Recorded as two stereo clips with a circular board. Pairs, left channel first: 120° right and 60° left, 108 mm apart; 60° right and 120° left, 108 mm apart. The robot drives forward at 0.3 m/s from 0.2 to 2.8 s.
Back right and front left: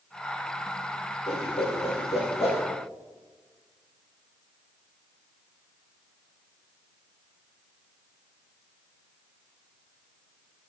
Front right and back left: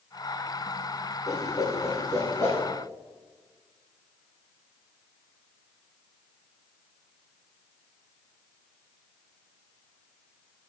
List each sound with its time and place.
1.3 s a whoosh: 120° right, 2.5 m; by 2.6 s 130° right, 2.5 m